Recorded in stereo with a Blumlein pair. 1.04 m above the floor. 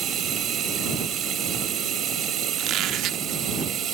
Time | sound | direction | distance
0.0 | running water | 25° right | ?
2.6 | a squeak | 30° right | ?